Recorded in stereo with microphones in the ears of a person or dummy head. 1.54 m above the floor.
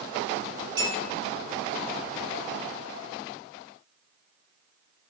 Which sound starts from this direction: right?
A clink, at 0.8 s.